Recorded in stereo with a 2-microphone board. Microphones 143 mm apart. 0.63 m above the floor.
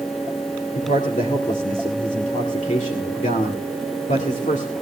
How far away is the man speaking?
About 1.9 m.